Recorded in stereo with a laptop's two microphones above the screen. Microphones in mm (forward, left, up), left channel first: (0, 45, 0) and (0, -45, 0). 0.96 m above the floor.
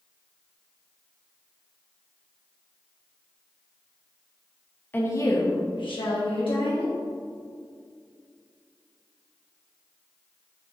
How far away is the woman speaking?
About 0.9 m.